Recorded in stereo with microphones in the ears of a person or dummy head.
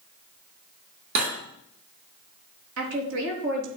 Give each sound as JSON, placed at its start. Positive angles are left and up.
{"t": 1.1, "sound": "cutlery clinking", "side_deg": -65, "distance_m": 2.5}
{"t": 2.8, "sound": "a woman speaking", "side_deg": -70, "distance_m": 3.0}